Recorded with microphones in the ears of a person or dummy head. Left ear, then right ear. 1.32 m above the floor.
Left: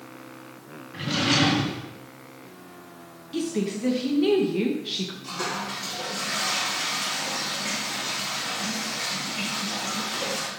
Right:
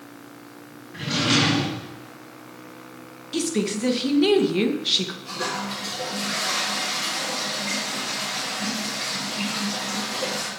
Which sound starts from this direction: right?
A woman speaking, at 3.3 s.